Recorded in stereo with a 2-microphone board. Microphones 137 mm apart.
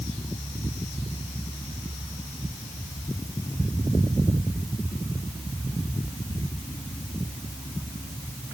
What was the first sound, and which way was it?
Only background noise.